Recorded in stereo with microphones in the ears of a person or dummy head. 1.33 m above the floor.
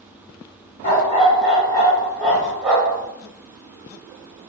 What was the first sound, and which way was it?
A dog barking, 40° left (ahead or behind).